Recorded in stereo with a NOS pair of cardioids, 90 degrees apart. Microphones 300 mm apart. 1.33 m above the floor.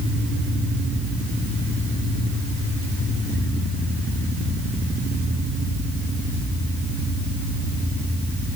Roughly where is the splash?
No splash in this recording.